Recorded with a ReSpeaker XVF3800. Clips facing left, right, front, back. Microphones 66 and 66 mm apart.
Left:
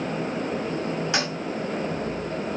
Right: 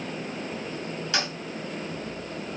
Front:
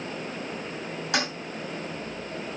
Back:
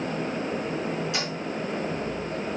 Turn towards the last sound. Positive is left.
turn(degrees=25)